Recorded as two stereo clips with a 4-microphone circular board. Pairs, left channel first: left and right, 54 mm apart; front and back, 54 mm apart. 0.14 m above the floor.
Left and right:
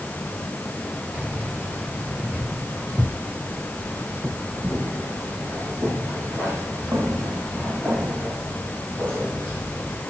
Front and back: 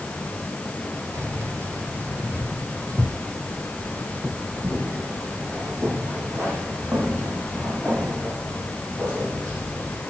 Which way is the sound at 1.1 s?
155° right.